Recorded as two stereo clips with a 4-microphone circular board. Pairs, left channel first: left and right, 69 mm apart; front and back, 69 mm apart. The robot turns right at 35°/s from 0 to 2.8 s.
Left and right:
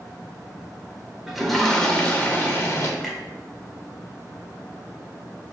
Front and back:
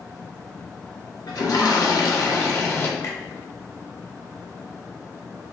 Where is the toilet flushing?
5° right, 0.8 m; by 2.9 s 50° left, 0.8 m.